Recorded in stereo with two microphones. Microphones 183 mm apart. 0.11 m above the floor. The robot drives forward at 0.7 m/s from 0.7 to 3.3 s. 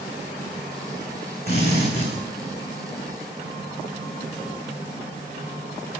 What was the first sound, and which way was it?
A drill, 60° left (ahead or behind).